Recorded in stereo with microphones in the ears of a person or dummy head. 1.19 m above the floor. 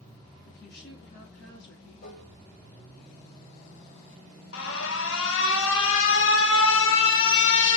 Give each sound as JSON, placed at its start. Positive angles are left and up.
{"t": 0.5, "sound": "a woman speaking", "side_deg": 60, "distance_m": 1.9}
{"t": 2.0, "sound": "dishes clattering", "side_deg": 50, "distance_m": 4.0}
{"t": 4.5, "sound": "an alarm", "side_deg": 70, "distance_m": 1.5}